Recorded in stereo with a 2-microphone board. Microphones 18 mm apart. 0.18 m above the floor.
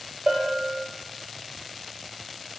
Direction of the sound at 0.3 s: 30° right (ahead or behind).